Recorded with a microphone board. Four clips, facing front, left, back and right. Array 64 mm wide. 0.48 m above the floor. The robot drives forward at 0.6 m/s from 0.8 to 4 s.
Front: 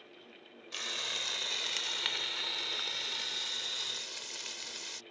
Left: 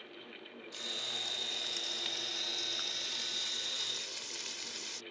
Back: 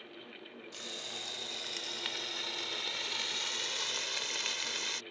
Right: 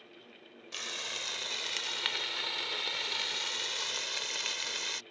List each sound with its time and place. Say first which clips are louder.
0.7 s frying: right 5 dB, front 7 dB; 40° right; by 5.0 s 130° right